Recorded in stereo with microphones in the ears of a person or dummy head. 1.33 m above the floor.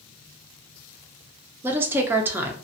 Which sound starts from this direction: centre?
A woman speaking, at 1.6 s.